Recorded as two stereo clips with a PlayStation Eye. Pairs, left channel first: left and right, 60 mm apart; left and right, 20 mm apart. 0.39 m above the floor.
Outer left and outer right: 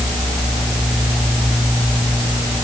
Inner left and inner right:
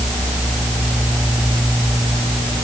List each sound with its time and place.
Only background noise.